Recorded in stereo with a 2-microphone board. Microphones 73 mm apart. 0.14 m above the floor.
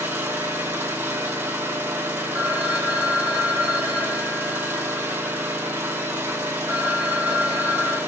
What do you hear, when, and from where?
0.0 s an engine running: 25° right (ahead or behind), 1.8 m
2.3 s a phone ringing: 15° right (ahead or behind), 3 m